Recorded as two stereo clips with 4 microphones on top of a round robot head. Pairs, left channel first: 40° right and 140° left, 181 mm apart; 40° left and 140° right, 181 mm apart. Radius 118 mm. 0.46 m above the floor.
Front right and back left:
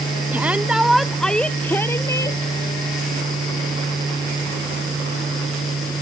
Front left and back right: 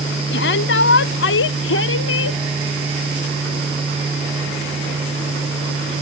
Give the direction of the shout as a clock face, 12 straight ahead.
10 o'clock.